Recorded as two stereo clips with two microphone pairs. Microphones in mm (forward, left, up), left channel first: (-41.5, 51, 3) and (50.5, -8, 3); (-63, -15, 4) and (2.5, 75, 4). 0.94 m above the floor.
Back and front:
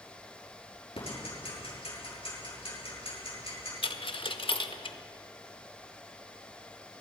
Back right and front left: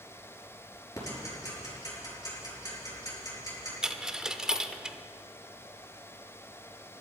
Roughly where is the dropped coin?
Behind left.